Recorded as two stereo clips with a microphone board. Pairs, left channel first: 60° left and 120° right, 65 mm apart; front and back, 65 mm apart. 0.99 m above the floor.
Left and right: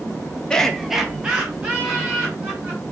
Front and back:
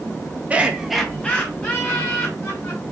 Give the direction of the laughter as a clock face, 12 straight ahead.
8 o'clock.